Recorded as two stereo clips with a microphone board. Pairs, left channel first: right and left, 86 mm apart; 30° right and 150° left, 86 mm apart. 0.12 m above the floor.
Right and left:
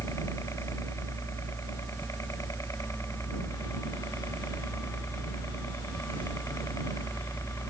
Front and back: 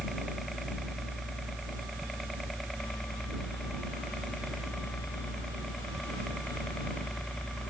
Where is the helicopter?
120° right; by 7.7 s 110° right.